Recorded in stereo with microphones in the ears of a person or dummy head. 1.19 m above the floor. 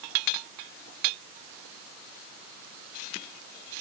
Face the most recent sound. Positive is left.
No sound to turn to.